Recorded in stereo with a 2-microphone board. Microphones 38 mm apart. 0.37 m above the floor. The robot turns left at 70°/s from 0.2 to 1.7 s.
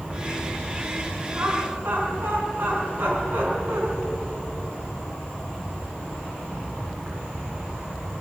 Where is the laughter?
70° right (ahead or behind), 5 m.